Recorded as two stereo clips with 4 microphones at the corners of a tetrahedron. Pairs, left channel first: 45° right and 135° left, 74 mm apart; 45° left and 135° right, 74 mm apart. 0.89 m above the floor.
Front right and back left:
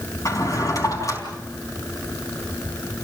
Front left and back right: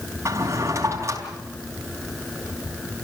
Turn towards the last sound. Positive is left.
turn(degrees=-85)